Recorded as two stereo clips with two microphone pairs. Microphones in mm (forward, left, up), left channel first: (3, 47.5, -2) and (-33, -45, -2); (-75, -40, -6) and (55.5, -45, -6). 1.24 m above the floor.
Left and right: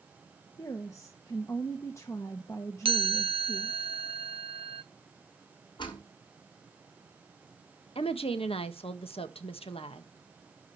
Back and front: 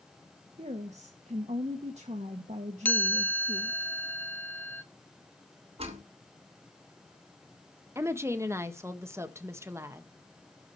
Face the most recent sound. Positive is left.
turn(degrees=65)